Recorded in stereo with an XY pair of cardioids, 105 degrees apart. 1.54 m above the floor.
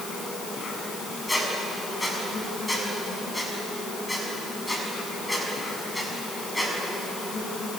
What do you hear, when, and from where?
0.0 s an insect: 40° left, 7 m
1.3 s a squeak: 15° left, 7 m